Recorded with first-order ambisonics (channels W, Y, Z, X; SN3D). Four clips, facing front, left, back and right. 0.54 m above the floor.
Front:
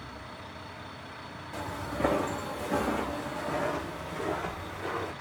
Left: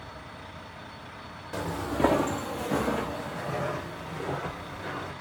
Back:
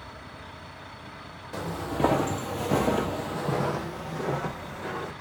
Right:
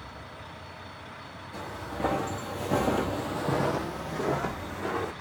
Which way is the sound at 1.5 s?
125° left.